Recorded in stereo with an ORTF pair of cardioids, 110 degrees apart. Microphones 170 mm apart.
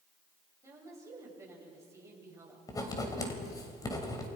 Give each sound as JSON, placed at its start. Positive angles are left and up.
{"t": 0.6, "sound": "a woman speaking", "azimuth_deg": -15, "distance_m": 8.0}
{"t": 2.7, "sound": "writing", "azimuth_deg": 20, "distance_m": 3.5}